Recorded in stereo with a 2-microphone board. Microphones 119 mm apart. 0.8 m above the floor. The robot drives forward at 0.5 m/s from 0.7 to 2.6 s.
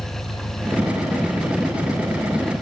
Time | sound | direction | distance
0.0 | an engine running | 55° left (ahead or behind) | ?